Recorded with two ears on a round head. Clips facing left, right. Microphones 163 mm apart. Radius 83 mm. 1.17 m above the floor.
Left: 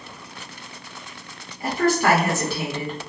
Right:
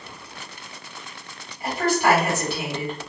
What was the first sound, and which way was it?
A woman speaking, 65° left (ahead or behind).